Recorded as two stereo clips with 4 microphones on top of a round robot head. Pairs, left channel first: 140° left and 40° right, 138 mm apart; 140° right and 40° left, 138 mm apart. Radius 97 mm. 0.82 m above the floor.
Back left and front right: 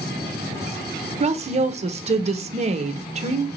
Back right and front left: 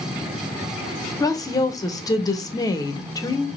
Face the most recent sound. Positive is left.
turn(degrees=-75)